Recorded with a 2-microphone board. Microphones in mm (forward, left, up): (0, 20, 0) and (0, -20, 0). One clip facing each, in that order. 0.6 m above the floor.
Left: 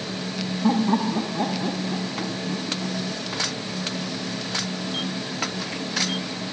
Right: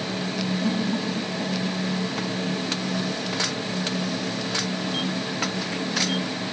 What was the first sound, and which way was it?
Laughter, 85° left.